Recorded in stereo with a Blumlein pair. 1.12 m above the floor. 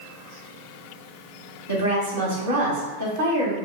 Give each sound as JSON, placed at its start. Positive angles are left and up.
{"t": 1.7, "sound": "a woman speaking", "azimuth_deg": -60, "distance_m": 1.3}